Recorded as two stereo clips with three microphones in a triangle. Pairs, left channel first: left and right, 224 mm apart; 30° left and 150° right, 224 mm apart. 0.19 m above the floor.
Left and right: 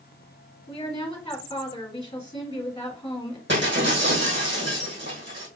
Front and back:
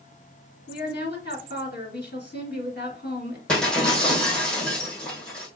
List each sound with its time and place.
0.7 s a woman speaking: 30° left, 2 m
3.5 s breaking glass: 55° right, 2.5 m